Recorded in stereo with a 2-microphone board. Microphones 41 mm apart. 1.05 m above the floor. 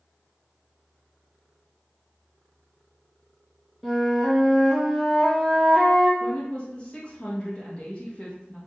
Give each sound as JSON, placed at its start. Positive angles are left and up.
{"t": 3.8, "sound": "a flute", "side_deg": 10, "distance_m": 1.2}
{"t": 6.2, "sound": "a woman speaking", "side_deg": 25, "distance_m": 1.2}